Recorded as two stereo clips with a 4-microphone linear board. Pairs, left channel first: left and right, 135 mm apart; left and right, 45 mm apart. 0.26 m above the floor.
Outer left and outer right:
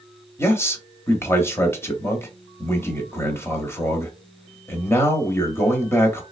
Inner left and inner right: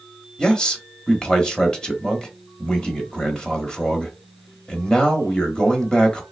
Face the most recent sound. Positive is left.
turn(degrees=20)  # may be behind; listen again after turning